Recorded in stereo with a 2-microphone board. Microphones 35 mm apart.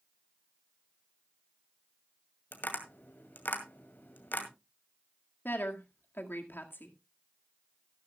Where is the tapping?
70° left (ahead or behind), 2 m.